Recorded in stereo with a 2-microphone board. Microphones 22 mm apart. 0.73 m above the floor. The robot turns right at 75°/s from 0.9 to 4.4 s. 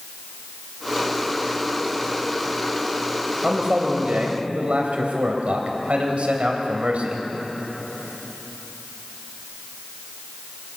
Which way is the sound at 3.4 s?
155° right.